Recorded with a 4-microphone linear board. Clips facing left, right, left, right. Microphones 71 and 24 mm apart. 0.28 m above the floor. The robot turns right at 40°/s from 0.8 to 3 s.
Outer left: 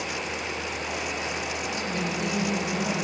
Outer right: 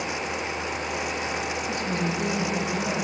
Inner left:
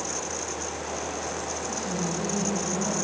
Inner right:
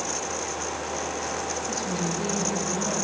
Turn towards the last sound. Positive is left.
turn(degrees=5)